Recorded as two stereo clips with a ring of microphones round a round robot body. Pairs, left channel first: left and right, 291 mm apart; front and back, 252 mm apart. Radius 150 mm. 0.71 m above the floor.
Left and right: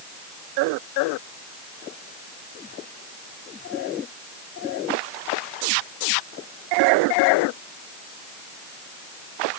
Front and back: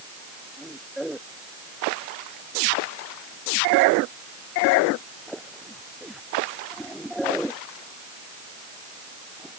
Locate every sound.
Only background noise.